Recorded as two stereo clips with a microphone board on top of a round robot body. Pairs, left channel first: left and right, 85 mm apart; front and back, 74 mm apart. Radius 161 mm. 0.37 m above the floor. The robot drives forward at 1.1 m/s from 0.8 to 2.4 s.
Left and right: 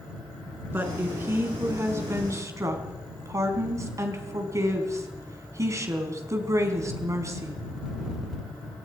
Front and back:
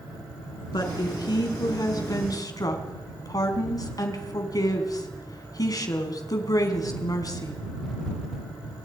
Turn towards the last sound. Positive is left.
turn(degrees=-35)